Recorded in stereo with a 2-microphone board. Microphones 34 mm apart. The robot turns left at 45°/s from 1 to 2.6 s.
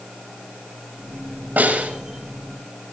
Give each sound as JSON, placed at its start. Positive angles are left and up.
{"t": 1.6, "sound": "a snare drum", "side_deg": -65, "distance_m": 5.5}